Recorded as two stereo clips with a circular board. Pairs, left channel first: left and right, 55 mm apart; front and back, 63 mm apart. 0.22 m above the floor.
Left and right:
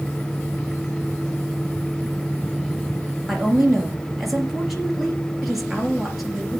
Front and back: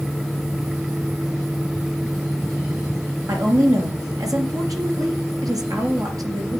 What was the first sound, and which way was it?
A woman speaking, 175° right.